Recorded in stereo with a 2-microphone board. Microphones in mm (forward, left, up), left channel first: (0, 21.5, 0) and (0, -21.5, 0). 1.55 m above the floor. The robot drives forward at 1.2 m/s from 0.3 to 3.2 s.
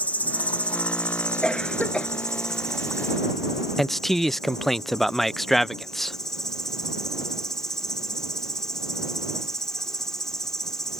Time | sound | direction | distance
0.0 | an insect | 40° left (ahead or behind) | ?
1.4 | a cough | 15° left (ahead or behind) | ?
3.8 | a man speaking | 5° left (ahead or behind) | ?